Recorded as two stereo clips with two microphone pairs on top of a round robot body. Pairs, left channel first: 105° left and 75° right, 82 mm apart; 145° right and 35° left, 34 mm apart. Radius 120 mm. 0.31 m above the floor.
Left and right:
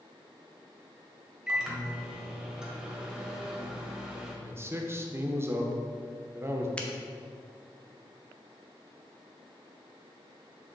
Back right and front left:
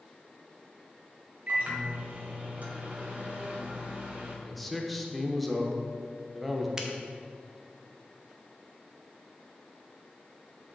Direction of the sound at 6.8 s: 55° left.